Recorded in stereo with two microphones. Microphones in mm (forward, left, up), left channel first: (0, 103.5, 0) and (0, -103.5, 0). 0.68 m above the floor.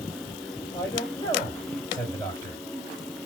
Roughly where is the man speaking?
Centre.